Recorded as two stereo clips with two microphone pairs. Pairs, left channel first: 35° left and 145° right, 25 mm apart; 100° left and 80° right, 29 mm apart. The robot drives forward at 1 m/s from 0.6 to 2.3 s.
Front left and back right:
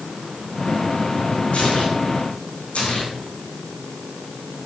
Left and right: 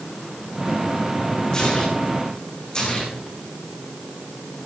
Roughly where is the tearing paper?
Ahead left.